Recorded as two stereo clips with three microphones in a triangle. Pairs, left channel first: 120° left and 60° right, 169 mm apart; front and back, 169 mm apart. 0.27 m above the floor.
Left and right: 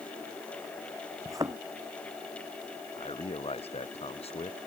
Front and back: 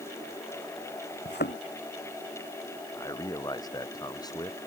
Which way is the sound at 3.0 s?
65° left.